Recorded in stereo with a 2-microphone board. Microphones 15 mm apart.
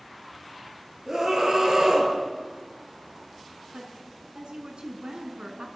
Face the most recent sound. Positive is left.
turn(degrees=-75)  # may be behind; listen again after turning